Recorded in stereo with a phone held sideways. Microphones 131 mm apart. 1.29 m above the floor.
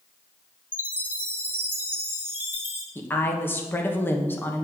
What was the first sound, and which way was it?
A chime, 15° right (ahead or behind).